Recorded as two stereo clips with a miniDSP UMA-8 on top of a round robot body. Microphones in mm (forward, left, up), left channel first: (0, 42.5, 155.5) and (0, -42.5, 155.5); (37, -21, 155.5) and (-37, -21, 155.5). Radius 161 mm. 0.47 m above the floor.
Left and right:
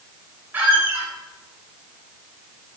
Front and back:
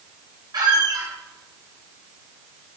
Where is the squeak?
160° right, 2.5 m.